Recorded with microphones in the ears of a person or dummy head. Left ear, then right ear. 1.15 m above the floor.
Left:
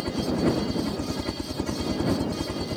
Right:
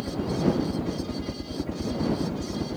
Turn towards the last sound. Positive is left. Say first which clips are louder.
# left 2 dB
turn(degrees=40)  # may be behind; listen again after turning